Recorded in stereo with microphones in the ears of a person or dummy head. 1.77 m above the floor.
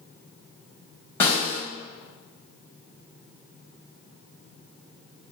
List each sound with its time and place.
1.2 s a snare drum: 15° left (ahead or behind), 1.6 m